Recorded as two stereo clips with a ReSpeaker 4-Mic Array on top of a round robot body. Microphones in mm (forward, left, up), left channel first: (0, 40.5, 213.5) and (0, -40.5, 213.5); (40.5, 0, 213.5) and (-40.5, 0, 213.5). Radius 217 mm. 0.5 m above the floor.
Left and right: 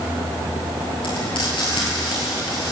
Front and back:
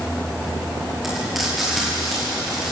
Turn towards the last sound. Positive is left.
turn(degrees=90)